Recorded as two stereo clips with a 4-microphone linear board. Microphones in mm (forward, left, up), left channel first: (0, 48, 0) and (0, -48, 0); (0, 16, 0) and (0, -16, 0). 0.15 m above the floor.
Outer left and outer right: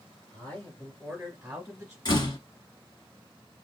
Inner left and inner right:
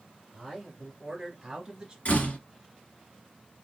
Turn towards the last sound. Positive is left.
turn(degrees=50)  # may be behind; listen again after turning